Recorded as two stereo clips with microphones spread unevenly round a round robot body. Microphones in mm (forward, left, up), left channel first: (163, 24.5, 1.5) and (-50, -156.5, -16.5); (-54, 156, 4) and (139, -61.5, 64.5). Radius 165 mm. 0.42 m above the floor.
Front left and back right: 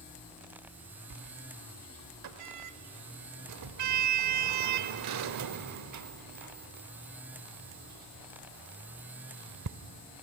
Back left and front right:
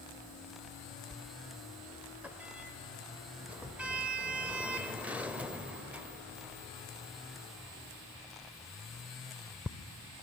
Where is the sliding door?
140° right, 0.7 m.